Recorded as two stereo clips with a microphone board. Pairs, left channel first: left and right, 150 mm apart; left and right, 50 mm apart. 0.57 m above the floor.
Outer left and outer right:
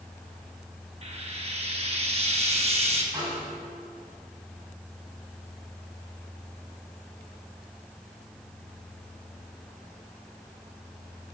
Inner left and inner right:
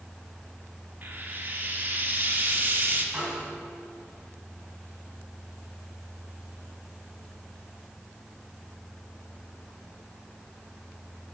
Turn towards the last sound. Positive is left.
turn(degrees=-30)  # may be behind; listen again after turning